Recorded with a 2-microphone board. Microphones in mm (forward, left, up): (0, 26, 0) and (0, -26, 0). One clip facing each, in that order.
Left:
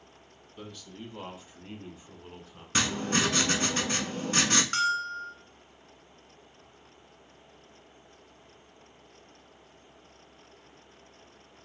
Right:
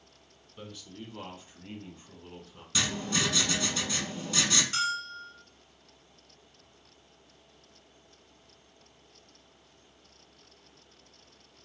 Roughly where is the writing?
Left.